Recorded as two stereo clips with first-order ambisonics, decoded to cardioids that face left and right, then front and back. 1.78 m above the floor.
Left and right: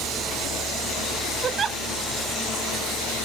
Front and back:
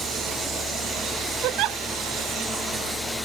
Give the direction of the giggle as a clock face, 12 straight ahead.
5 o'clock.